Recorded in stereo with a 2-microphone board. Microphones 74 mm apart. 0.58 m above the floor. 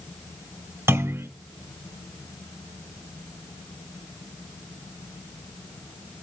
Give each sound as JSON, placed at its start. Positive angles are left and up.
{"t": 0.9, "sound": "a clunk", "side_deg": -35, "distance_m": 2.5}